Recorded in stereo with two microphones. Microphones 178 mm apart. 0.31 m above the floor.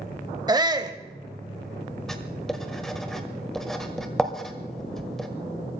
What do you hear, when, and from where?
0.5 s a shout: 25° right (ahead or behind), 1.2 m
2.1 s writing: centre (ahead or behind), 1.6 m